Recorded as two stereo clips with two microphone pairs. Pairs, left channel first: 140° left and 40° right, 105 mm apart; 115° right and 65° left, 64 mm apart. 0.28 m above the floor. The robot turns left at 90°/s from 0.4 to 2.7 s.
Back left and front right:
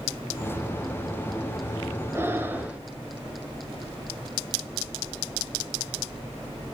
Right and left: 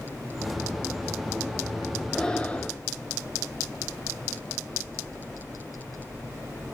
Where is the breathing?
40° right, 1.1 m; by 2.8 s 90° right, 1.1 m.